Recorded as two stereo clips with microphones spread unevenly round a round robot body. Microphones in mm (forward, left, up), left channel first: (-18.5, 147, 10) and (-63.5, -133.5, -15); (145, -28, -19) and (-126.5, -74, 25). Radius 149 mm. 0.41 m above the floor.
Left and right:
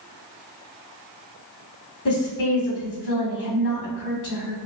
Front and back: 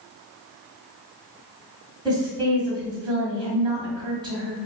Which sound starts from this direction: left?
A woman speaking, at 2.0 s.